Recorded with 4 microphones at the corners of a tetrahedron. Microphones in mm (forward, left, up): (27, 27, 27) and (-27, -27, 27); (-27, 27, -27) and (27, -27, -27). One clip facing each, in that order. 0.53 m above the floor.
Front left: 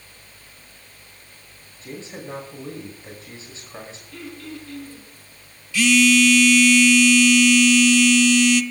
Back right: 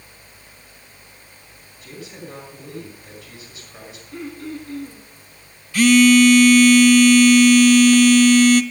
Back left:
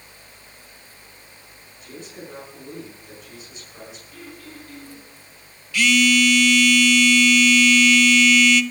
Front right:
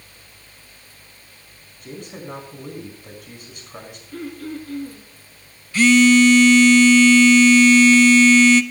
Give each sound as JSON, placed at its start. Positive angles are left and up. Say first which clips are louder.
{"t": 1.8, "sound": "a man speaking", "louder": "front left 2 dB, front right 4 dB", "azimuth_deg": -15, "distance_m": 5.0}
{"t": 4.1, "sound": "throat clearing", "louder": "back right 6 dB, front right 10 dB", "azimuth_deg": -75, "distance_m": 4.0}
{"t": 5.7, "sound": "a phone buzzing", "louder": "back right 5 dB, front right 6 dB", "azimuth_deg": -95, "distance_m": 0.6}